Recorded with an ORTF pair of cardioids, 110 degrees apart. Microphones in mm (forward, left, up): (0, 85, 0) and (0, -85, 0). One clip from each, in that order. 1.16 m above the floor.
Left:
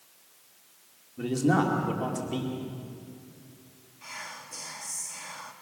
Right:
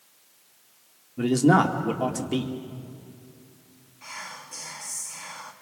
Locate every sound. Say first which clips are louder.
1.2 s a man speaking: right 6 dB; 40° right, 2.5 m
4.0 s whispering: right 2 dB; 15° right, 2 m